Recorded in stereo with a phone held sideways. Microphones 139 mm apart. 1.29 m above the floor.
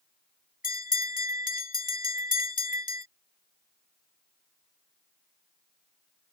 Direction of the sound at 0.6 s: 80° left.